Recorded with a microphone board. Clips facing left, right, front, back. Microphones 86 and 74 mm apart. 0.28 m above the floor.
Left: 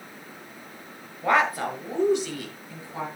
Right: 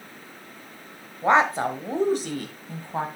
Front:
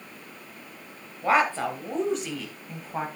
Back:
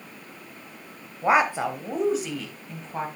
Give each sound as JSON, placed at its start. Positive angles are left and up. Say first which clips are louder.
{"t": 1.2, "sound": "a woman speaking", "louder": "right 3 dB, back 2 dB", "azimuth_deg": -130, "distance_m": 1.2}